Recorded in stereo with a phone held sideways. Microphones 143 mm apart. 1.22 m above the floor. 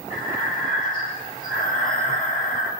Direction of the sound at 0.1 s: 80° left.